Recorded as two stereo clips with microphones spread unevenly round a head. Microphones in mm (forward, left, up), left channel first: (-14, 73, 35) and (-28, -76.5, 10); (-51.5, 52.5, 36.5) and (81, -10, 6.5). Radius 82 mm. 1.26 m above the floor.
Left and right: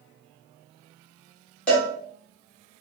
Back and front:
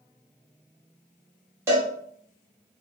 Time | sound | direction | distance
1.7 | a cowbell | 50° left | 0.9 m